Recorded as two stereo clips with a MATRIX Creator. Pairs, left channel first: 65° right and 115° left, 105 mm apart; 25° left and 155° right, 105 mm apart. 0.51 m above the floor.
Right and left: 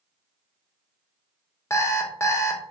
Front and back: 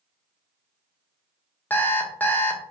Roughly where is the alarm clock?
Ahead right.